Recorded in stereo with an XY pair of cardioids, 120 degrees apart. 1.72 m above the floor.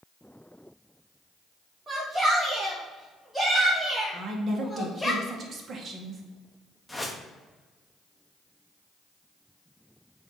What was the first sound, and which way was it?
A shout, 15° right.